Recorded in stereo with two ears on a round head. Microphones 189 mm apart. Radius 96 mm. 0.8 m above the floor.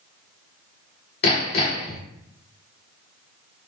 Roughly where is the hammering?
Left.